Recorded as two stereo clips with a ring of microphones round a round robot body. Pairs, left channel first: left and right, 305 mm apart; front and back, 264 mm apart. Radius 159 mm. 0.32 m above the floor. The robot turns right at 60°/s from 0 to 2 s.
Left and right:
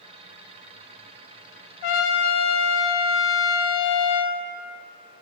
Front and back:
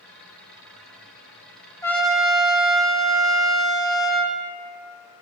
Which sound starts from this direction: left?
A trumpet, at 1.8 s.